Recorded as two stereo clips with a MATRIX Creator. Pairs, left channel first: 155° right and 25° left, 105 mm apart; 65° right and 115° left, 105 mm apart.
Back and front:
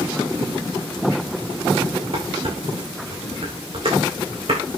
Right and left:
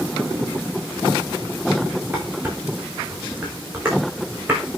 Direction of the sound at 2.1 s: 45° left.